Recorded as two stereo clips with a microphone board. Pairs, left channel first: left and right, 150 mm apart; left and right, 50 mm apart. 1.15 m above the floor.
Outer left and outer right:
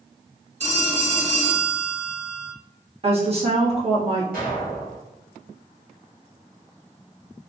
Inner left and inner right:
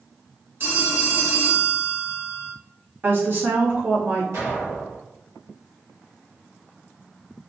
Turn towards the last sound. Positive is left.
turn(degrees=-75)  # may be behind; listen again after turning